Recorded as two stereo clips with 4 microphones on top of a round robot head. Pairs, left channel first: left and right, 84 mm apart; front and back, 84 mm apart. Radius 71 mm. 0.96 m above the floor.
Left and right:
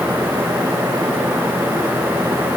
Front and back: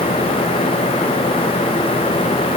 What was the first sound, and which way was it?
Only background noise.